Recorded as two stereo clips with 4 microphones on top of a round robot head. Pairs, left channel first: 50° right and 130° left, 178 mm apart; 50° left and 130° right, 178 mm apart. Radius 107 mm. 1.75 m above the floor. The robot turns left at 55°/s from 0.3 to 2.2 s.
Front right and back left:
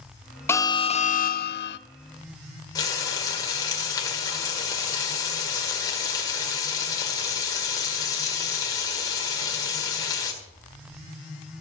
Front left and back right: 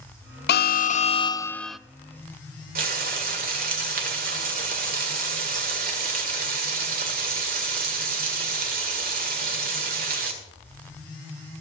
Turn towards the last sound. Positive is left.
turn(degrees=-115)